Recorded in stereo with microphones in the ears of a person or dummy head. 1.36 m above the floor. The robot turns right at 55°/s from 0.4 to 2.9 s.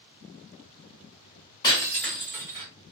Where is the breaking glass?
155° left, 1.2 m; by 2.7 s 150° right, 1.2 m.